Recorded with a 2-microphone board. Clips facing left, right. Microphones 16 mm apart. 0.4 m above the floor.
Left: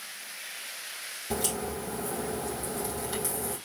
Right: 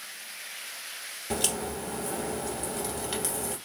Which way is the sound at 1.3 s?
50° right (ahead or behind).